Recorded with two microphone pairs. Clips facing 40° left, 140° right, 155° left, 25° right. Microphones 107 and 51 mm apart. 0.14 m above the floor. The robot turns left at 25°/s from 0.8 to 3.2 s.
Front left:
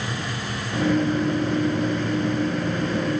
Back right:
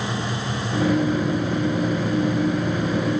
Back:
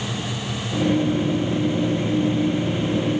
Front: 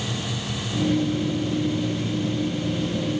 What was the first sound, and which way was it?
Only background noise.